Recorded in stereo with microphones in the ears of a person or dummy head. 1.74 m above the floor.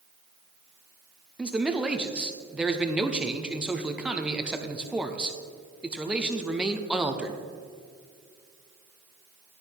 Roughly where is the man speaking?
Centre.